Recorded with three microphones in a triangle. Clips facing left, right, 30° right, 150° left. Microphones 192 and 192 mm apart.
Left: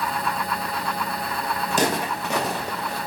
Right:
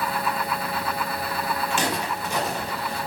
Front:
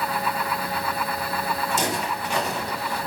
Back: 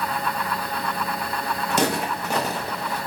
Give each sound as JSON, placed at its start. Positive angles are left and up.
{"t": 1.7, "sound": "footsteps", "azimuth_deg": 145, "distance_m": 0.6}